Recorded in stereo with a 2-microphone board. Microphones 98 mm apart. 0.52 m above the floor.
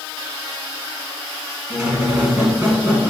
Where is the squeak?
20° right (ahead or behind), 1.4 m.